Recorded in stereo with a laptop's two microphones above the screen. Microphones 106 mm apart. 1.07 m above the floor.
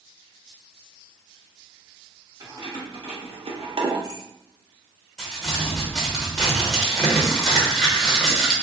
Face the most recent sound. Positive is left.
turn(degrees=0)  # may be behind; listen again after turning